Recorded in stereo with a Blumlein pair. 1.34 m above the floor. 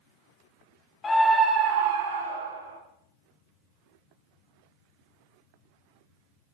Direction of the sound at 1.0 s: 15° left.